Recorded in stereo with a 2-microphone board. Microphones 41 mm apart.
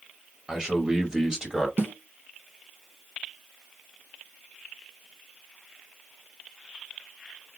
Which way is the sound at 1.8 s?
60° right (ahead or behind).